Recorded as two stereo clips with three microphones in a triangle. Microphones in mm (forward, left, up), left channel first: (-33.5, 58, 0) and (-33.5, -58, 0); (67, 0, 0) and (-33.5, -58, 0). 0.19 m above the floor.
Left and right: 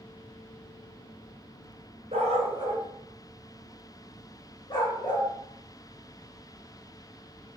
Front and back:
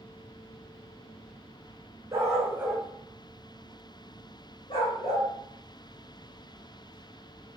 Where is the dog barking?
90° right, 0.9 m; by 5.3 s 55° left, 1.4 m.